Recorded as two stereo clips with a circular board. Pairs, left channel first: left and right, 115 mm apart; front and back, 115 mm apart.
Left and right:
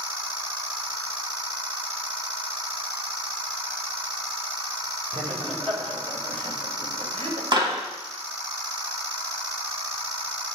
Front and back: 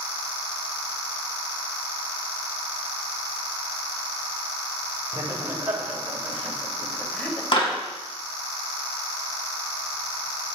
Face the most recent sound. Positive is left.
turn(degrees=-40)